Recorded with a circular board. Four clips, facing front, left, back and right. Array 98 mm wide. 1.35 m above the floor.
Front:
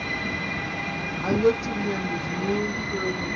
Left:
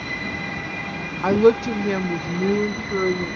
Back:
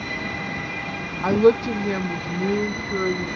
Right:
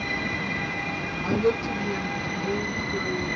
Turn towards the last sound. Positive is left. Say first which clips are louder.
# left 8 dB, back 5 dB
turn(degrees=110)